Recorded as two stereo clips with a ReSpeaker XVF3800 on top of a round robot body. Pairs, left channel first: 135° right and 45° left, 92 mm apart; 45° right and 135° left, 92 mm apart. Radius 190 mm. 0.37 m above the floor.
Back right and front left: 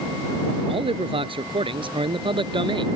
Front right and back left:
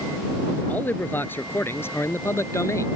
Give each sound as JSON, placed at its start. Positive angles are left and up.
{"t": 0.7, "sound": "a man speaking", "azimuth_deg": 25}